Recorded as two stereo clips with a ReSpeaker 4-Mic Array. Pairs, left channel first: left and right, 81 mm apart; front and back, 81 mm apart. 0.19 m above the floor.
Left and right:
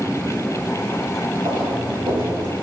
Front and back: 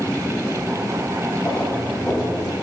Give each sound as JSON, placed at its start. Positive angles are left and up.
{"t": 1.4, "sound": "footsteps", "azimuth_deg": -70, "distance_m": 4.5}